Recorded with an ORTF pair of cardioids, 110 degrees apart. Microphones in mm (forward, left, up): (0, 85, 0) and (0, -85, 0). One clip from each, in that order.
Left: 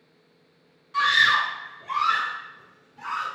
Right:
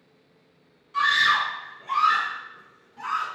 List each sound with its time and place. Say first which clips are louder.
0.9 s a scream: left 1 dB; 20° left, 0.9 m; by 3.3 s 60° right, 1.6 m